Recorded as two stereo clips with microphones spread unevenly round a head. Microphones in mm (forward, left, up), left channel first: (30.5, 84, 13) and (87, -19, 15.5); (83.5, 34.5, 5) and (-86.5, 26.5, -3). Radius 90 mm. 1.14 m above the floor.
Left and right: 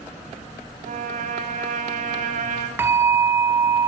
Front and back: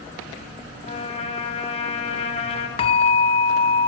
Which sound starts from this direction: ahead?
A bell, at 2.8 s.